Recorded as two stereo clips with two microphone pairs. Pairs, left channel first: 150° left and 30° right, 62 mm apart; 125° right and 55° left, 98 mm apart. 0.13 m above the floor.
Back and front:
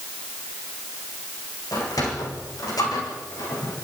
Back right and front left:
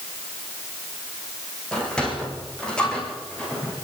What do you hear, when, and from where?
1.7 s a sliding door: 155° left, 5 m